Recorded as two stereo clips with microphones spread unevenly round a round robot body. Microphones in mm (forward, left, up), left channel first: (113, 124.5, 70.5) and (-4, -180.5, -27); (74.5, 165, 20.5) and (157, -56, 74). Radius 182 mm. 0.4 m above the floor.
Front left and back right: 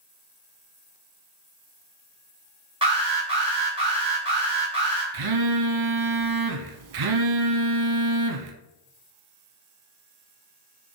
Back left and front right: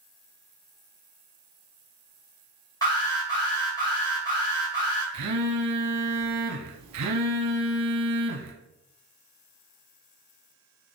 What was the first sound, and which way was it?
An alarm, 175° right.